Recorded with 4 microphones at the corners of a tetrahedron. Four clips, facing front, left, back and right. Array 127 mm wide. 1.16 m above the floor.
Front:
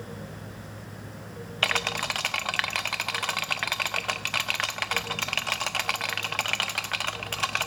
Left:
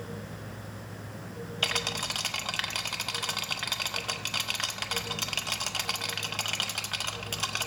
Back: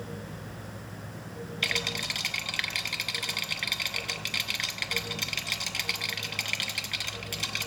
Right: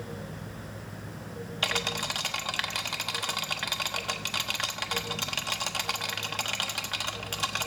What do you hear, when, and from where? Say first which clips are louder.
1.6 s a rattle: right 2 dB, front 7 dB; 5° right, 0.7 m